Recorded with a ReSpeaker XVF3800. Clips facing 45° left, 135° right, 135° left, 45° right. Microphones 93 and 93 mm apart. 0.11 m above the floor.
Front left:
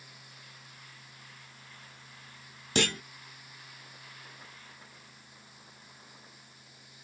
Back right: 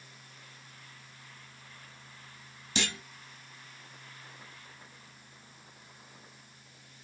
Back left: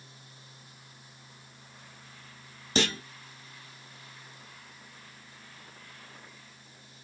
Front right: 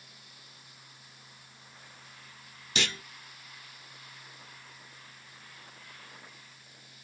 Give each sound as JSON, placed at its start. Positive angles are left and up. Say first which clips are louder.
{"t": 2.8, "sound": "a clunk", "louder": "front left 5 dB, back left 6 dB", "azimuth_deg": 80, "distance_m": 0.6}